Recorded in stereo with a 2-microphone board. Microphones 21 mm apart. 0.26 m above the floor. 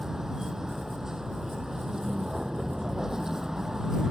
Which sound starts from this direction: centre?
A vehicle, at 0.0 s.